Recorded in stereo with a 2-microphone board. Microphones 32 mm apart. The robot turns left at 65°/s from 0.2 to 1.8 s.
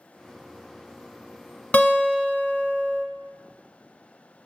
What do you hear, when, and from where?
1.7 s a guitar: 45° left (ahead or behind), 0.7 m; by 3.0 s 50° left (ahead or behind), 0.7 m